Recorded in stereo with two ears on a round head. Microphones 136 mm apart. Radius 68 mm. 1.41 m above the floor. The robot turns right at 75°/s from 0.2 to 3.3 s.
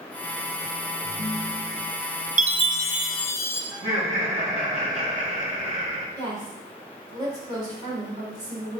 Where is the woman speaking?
25° right (ahead or behind), 4 m.